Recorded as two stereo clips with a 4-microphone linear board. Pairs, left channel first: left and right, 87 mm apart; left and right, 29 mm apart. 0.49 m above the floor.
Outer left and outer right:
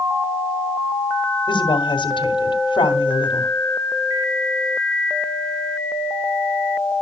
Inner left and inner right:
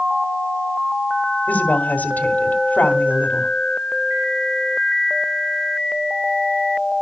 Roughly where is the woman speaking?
Left.